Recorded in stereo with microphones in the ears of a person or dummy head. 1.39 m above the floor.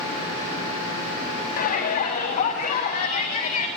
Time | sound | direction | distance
1.6 | a shout | 50° left (ahead or behind) | 8.5 m